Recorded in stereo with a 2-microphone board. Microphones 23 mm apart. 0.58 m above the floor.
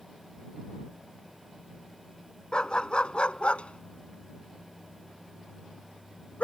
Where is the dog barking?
35° left (ahead or behind); by 6.4 s 85° left.